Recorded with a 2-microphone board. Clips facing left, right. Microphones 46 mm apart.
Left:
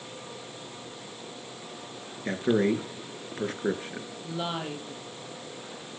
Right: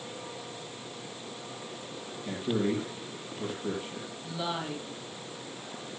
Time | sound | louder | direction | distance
2.2 | a man speaking | left 5 dB | 65° left (ahead or behind) | 3.5 m
4.2 | a woman speaking | left 1 dB | 35° left (ahead or behind) | 5 m